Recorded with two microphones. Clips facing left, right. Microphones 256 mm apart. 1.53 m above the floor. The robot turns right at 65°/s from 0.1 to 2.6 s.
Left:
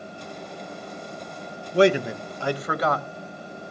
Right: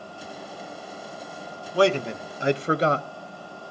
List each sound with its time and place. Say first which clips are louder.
1.7 s a man speaking: left 3 dB; 155° left, 0.6 m; by 3.1 s 150° right, 0.6 m